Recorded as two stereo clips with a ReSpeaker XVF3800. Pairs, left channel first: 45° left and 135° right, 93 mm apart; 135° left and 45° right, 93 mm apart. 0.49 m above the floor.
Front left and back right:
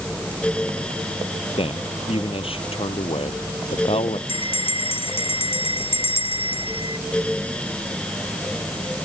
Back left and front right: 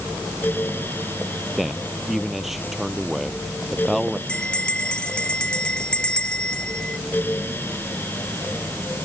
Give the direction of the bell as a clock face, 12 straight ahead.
10 o'clock.